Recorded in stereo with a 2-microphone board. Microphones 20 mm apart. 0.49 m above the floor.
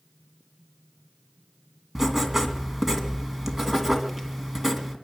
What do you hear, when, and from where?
1.9 s writing: 15° right (ahead or behind), 2 m